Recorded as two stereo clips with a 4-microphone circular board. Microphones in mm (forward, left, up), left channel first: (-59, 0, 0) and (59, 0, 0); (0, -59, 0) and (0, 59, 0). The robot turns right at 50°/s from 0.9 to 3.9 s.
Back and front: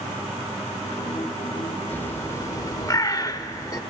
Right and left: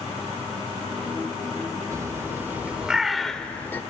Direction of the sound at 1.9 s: 120° left.